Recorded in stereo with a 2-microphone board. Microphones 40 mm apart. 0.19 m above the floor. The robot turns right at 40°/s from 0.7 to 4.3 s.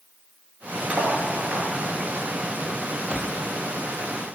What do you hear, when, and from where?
0.9 s cutlery clinking: 40° right (ahead or behind), 2 m; by 1.7 s 15° right (ahead or behind), 2 m
3.1 s a whoosh: 25° right (ahead or behind), 1.3 m; by 3.4 s 10° right (ahead or behind), 1.3 m